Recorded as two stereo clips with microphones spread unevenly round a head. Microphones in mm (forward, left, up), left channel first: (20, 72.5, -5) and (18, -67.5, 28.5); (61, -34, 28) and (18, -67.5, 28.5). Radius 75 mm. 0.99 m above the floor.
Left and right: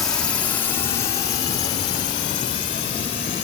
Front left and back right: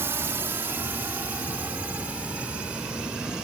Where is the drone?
165° left; by 3.4 s 135° left.